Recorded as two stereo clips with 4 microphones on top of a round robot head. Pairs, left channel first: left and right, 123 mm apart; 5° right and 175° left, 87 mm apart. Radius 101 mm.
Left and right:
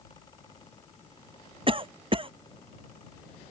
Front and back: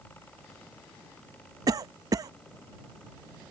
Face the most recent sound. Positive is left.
turn(degrees=-135)